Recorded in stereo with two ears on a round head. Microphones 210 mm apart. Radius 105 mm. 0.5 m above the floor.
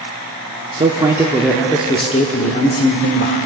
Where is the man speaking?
25° right (ahead or behind), 0.9 m; by 3.4 s 50° left (ahead or behind), 1.5 m.